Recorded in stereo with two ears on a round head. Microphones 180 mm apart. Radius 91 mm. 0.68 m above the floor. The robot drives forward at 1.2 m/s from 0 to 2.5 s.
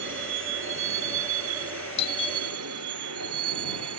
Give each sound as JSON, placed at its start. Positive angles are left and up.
{"t": 0.0, "sound": "a vehicle", "side_deg": -60}
{"t": 2.0, "sound": "a doorbell", "side_deg": 30}